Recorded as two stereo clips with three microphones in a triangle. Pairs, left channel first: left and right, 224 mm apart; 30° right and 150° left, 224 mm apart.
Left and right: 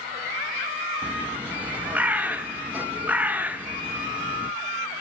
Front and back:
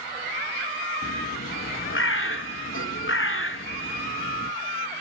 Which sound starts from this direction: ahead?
A bird, at 1.0 s.